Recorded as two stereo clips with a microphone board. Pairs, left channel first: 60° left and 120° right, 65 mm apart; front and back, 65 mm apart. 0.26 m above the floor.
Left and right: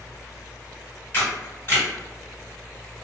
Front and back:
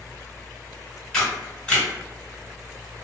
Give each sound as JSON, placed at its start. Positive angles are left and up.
{"t": 1.1, "sound": "a camera shutter", "azimuth_deg": 65, "distance_m": 1.7}